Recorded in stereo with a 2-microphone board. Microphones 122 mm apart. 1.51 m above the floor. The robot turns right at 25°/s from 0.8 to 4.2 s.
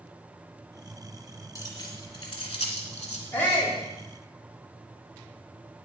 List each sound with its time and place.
1.6 s keys jangling: 25° left (ahead or behind), 2 m; by 3.2 s 65° left (ahead or behind), 2 m
3.3 s a shout: 15° left (ahead or behind), 4 m; by 3.8 s 25° left (ahead or behind), 4 m